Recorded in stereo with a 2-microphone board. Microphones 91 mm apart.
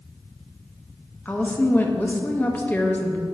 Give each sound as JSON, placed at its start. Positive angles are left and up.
{"t": 1.2, "sound": "a woman speaking", "side_deg": 20, "distance_m": 0.7}